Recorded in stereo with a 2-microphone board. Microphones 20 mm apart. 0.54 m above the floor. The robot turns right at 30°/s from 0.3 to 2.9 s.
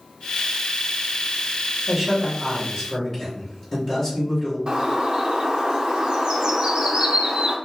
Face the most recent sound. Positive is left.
turn(degrees=-50)  # may be behind; listen again after turning